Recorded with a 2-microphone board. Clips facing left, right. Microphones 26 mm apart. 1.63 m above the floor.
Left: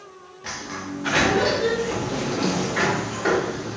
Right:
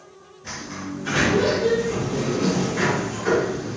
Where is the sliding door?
65° left (ahead or behind), 0.6 m.